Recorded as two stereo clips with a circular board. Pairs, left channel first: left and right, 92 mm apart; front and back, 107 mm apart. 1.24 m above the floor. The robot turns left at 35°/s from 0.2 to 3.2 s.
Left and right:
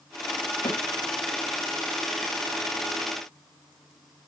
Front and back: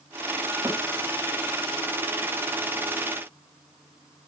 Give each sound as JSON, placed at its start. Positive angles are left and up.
{"t": 0.7, "sound": "a snare drum", "azimuth_deg": 115, "distance_m": 3.0}